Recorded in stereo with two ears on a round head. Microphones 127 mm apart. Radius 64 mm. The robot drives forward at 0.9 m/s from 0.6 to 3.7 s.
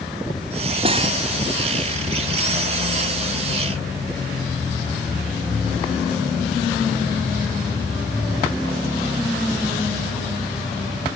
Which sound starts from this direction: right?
Cutlery clinking, at 0.8 s.